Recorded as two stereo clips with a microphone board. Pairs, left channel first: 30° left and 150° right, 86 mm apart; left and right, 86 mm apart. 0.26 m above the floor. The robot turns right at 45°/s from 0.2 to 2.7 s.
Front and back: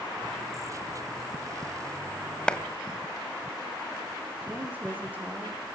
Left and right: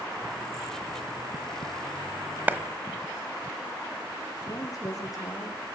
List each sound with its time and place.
2.5 s a clap: 40° right, 1.5 m; by 2.6 s 35° right, 1.5 m
4.4 s a woman speaking: 140° left, 6 m